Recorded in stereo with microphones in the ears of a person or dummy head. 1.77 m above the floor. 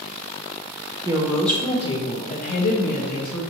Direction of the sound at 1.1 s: 20° right (ahead or behind).